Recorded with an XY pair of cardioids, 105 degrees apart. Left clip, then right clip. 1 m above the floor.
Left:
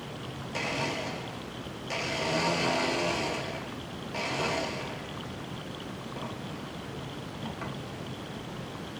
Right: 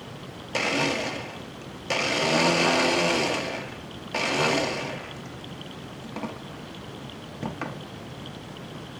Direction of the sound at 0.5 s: 60° right.